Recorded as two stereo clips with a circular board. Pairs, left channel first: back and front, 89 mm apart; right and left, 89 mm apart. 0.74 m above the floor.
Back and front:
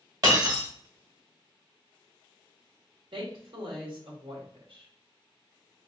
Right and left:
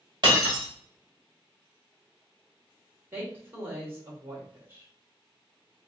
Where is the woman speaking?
25° left, 2.5 m.